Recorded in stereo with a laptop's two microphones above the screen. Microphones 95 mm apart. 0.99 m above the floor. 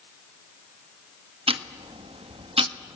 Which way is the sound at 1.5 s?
75° right (ahead or behind).